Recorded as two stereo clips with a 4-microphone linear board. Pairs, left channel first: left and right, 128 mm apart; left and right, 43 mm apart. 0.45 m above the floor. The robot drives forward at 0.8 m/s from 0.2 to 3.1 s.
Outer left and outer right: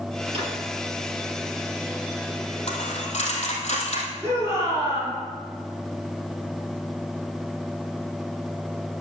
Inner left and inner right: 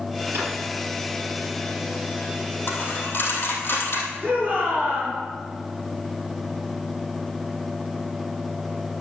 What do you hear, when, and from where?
0.3 s a drawer: 50° right (ahead or behind), 5 m
2.7 s a dropped coin: 55° left (ahead or behind), 3 m; by 4.1 s 60° left (ahead or behind), 3 m
4.2 s a shout: 25° right (ahead or behind), 5 m